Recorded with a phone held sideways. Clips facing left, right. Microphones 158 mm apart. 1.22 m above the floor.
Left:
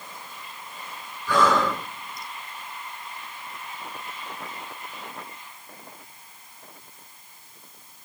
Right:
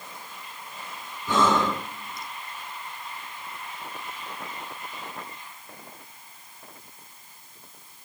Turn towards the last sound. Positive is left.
turn(degrees=-25)  # may be behind; listen again after turning